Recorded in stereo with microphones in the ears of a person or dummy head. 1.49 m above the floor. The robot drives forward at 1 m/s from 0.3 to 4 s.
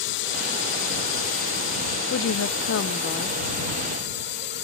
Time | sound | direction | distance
0.0 | a drone | 65° left (ahead or behind) | ?
2.1 | a woman speaking | 55° left (ahead or behind) | ?